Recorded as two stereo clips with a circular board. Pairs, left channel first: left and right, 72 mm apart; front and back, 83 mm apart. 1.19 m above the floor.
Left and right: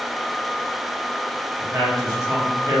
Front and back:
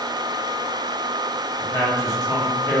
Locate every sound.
1.6 s a man speaking: 50° right, 1.5 m